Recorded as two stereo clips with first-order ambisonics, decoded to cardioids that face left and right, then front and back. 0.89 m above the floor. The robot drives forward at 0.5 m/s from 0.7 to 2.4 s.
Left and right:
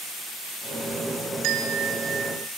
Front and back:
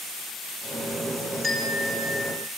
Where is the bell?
100° right, 2 m; by 2.5 s 110° right, 2.5 m.